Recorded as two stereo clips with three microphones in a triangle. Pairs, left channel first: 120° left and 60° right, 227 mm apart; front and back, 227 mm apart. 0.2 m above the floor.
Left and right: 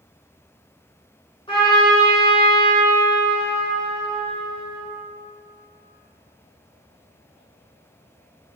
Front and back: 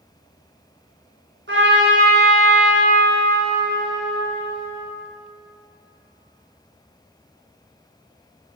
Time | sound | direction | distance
1.5 | a trumpet | straight behind | 2.5 m